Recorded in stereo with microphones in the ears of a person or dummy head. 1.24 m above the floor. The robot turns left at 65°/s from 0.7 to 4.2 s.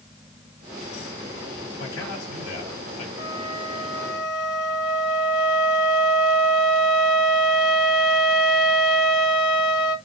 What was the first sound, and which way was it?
A man speaking, 115° left.